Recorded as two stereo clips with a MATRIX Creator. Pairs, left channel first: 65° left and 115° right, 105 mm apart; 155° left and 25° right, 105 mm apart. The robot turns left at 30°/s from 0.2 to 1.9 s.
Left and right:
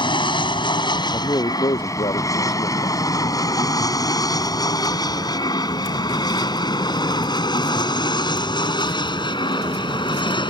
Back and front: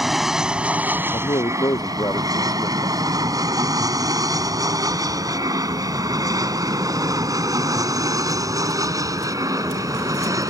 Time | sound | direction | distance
0.0 | an aircraft | 65° left | ?
1.1 | a man speaking | 125° left | ?